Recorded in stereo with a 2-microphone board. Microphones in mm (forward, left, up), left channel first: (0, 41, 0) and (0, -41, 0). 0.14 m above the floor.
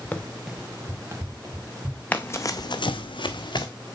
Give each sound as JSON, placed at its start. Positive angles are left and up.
{"t": 0.1, "sound": "running footsteps", "side_deg": 20, "distance_m": 0.9}
{"t": 2.1, "sound": "running footsteps", "side_deg": 20, "distance_m": 0.8}